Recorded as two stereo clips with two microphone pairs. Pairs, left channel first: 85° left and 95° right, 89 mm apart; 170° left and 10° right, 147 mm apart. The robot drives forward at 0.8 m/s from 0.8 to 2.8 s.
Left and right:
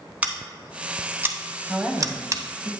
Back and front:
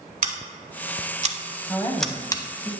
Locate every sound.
0.2 s scissors: 20° right, 1.0 m; by 2.4 s 140° right, 0.7 m
1.7 s a woman speaking: 155° right, 1.0 m; by 2.7 s 170° right, 1.5 m